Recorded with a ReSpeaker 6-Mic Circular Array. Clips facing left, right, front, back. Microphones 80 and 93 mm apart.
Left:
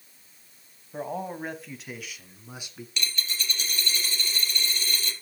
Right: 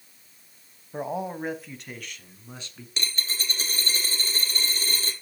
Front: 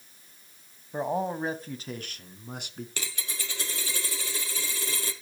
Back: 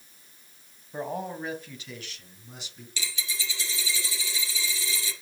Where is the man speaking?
45° right, 1.2 m; by 2.9 s 15° left, 2 m.